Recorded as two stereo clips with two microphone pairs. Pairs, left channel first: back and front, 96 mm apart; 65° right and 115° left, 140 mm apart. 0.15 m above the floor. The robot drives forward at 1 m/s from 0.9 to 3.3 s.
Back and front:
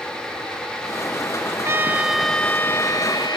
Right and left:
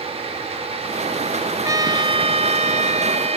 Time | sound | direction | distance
1.6 | a trumpet | 55° left | ?